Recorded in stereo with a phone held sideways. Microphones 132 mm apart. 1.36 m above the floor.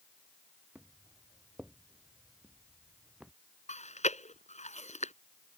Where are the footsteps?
10° right (ahead or behind); by 3.3 s 5° right (ahead or behind).